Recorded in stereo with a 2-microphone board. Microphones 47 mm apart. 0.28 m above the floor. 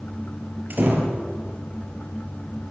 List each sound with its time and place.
0.7 s a door slam: 45° right (ahead or behind), 3.5 m